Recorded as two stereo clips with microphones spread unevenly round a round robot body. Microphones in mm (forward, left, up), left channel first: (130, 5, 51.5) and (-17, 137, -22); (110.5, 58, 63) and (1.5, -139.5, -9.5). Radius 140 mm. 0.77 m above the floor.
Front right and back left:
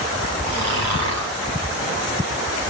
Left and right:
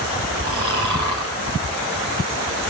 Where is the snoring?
165° left, 5 m.